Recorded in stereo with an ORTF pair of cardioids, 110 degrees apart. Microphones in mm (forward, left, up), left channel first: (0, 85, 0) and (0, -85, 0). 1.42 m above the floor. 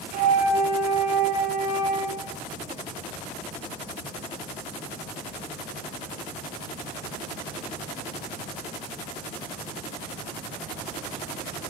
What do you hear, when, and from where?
0.1 s a flute: 60° right, 6 m